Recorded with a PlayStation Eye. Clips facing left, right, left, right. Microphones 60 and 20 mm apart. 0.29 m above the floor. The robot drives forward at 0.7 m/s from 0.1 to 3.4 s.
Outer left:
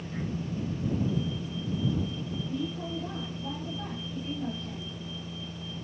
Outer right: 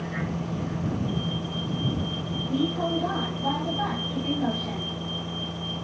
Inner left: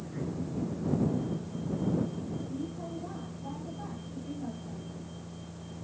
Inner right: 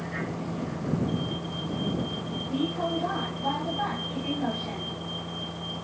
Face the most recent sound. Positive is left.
turn(degrees=-85)